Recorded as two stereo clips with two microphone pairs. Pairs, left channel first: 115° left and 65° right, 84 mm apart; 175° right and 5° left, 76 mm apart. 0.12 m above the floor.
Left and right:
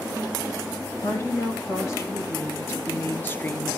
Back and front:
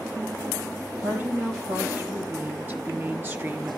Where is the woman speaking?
65° left, 4 m; by 3.8 s 50° left, 1.9 m.